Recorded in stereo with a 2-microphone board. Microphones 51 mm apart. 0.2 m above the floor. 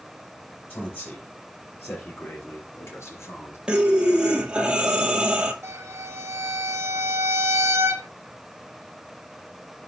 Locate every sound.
0.7 s a man speaking: 40° left (ahead or behind), 5 m; by 3.6 s 65° left (ahead or behind), 3.5 m
3.7 s breathing: 20° right (ahead or behind), 1.1 m
5.6 s a violin: 60° right (ahead or behind), 1.9 m